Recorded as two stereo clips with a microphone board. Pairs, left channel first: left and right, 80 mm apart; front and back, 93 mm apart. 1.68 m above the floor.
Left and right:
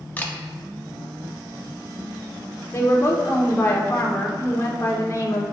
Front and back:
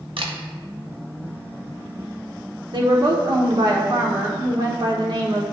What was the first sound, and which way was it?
A camera shutter, 160° left.